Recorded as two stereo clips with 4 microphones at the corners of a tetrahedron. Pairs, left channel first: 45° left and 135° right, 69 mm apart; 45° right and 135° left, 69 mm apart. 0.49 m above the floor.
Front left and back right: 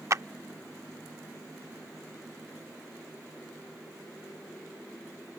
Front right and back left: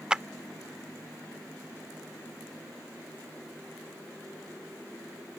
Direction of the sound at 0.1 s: 155° right.